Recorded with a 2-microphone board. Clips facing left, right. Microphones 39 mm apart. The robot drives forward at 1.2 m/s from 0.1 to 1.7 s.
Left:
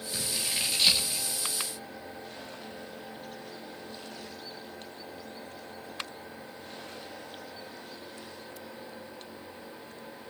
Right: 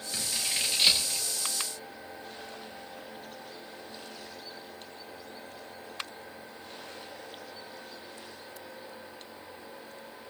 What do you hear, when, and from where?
0.1 s scissors: 15° right (ahead or behind), 7 m